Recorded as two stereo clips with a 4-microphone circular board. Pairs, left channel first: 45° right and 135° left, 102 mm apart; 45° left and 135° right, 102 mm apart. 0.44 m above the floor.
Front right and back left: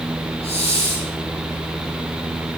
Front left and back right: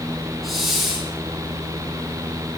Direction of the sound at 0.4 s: 45° right.